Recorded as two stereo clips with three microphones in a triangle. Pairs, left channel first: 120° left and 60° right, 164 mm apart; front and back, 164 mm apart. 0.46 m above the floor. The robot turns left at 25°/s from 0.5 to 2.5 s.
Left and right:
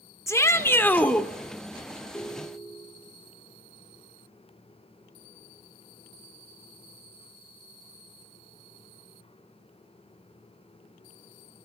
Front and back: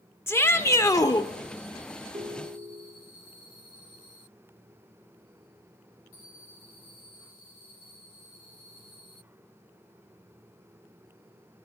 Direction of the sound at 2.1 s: 160° right.